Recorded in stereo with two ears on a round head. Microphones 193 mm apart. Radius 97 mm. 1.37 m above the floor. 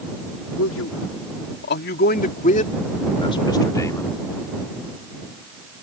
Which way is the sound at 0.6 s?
65° left (ahead or behind).